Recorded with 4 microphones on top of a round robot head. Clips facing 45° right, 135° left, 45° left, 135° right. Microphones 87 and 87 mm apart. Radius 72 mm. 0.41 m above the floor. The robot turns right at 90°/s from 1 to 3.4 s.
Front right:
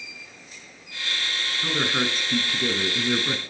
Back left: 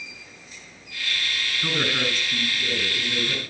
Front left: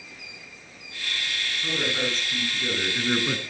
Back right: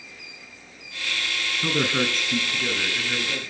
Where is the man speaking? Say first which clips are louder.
Front right 1 dB, back right 4 dB; 140° right, 5 m; by 3.4 s 20° left, 5 m.